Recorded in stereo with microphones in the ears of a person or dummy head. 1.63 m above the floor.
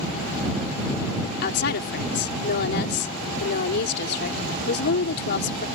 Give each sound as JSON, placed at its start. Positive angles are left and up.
{"t": 1.4, "sound": "a woman speaking", "side_deg": 55}